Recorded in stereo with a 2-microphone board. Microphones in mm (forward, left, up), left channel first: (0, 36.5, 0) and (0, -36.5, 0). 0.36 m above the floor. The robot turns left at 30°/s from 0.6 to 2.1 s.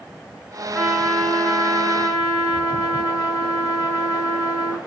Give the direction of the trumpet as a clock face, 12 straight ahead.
6 o'clock.